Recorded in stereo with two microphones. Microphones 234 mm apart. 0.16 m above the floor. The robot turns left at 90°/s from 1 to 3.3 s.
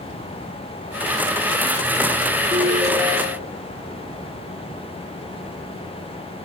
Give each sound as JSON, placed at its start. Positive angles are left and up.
{"t": 2.5, "sound": "a ringtone", "azimuth_deg": 10, "distance_m": 4.0}